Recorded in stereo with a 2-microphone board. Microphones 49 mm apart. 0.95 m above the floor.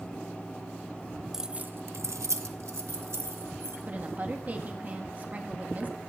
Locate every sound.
1.3 s keys jangling: 10° right (ahead or behind), 0.6 m; by 3.8 s 65° right (ahead or behind), 2 m
3.9 s a woman speaking: 35° right (ahead or behind), 1.5 m